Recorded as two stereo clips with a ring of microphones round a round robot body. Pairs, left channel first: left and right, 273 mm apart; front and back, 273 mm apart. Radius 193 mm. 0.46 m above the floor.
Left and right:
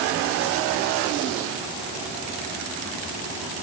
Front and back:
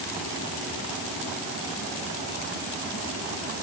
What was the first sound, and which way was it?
Only background noise.